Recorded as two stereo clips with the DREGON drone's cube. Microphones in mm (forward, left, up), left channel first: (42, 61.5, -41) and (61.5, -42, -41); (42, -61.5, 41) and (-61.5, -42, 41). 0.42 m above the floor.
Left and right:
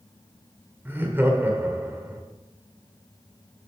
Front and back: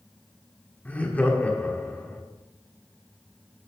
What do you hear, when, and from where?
0.8 s laughter: 65° right, 1.4 m